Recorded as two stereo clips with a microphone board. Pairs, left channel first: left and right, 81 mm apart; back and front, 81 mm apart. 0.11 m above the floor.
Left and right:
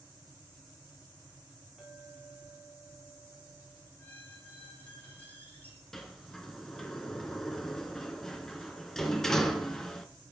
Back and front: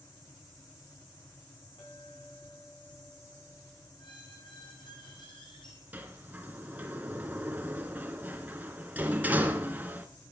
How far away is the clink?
About 7.5 m.